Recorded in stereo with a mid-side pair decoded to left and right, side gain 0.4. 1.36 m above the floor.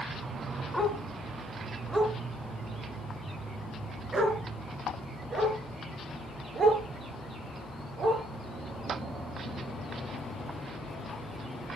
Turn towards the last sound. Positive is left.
turn(degrees=-55)